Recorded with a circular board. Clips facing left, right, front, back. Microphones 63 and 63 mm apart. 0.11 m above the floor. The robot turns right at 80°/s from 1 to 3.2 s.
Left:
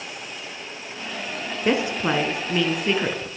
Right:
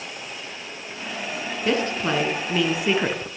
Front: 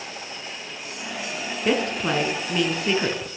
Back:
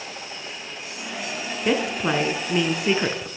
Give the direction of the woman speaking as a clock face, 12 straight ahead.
8 o'clock.